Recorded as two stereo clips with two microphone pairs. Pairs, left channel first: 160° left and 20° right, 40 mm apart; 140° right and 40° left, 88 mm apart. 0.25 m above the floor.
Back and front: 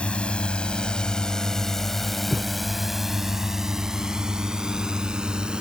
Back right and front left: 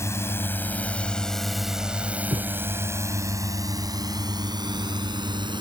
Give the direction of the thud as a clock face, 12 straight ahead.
11 o'clock.